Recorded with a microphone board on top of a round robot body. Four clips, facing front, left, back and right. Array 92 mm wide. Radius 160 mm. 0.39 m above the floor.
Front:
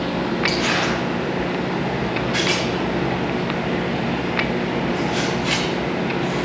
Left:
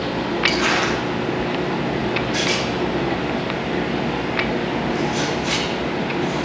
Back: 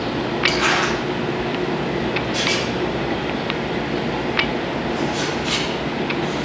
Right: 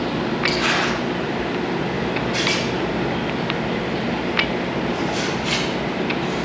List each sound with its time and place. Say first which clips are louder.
0.5 s crumpling: left 2 dB, back 5 dB; 165° left, 4 m
2.3 s a rattle: even, even; 20° left, 5 m